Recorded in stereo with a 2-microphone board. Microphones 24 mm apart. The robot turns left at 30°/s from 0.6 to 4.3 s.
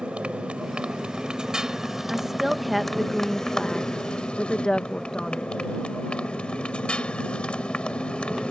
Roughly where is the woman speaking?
Behind right.